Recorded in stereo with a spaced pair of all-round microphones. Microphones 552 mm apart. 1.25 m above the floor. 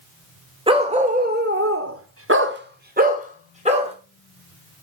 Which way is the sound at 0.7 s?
10° right (ahead or behind).